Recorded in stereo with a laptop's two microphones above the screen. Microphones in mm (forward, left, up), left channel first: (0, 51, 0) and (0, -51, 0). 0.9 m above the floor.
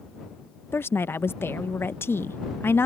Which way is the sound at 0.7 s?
25° left (ahead or behind).